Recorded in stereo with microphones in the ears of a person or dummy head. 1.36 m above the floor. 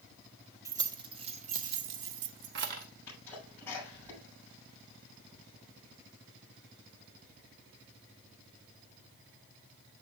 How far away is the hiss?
No hiss in this recording.